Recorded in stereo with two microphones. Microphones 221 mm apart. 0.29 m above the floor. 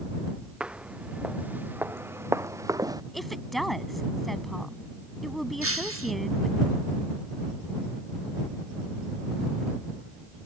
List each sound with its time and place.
0.6 s footsteps: 5° right (ahead or behind); by 3.0 s 15° right (ahead or behind)
3.1 s a woman speaking: centre (ahead or behind)
5.6 s breaking glass: 80° right